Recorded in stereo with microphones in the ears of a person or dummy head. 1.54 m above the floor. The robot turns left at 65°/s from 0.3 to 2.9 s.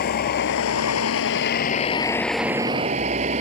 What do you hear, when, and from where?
0.0 s a vehicle: 130° left; by 3.4 s 40° right